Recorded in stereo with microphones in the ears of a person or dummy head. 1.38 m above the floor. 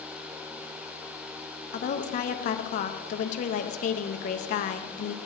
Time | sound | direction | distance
1.7 | a woman speaking | 40° left (ahead or behind) | 0.5 m